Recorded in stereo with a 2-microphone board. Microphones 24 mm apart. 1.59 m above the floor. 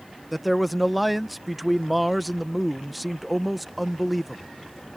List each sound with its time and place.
0.3 s a man speaking: 5° right (ahead or behind)